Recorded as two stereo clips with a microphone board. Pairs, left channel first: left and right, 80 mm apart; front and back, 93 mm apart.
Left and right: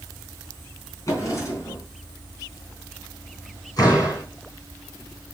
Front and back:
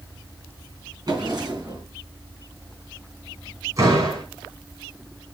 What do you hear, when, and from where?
1.1 s a drawer: 140° left, 3.5 m
3.8 s a door slam: 125° left, 5 m